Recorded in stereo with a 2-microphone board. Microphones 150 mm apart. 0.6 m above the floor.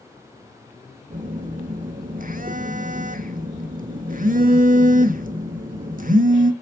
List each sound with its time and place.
1.1 s a phone buzzing: 65° right (ahead or behind), 0.7 m